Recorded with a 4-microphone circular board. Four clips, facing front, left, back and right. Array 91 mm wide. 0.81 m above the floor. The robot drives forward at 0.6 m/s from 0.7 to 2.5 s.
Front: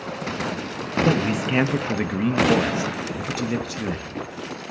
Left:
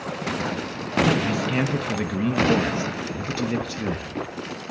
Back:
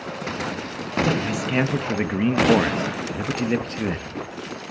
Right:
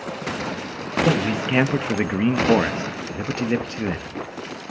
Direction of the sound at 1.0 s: 55° right.